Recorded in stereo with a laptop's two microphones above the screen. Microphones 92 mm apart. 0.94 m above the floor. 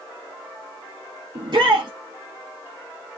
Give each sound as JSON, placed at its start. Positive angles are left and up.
{"t": 1.4, "sound": "a shout", "side_deg": -55, "distance_m": 0.7}